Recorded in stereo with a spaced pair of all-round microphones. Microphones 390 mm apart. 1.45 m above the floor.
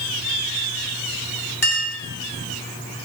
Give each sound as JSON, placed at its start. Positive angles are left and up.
{"t": 1.6, "sound": "a clink", "side_deg": 70, "distance_m": 1.5}